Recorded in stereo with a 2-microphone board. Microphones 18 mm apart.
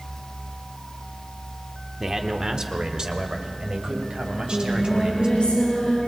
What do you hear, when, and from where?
2.0 s a man speaking: 25° right (ahead or behind), 1.2 m; by 5.3 s 60° right (ahead or behind), 4 m
4.3 s singing: 65° left (ahead or behind), 8.5 m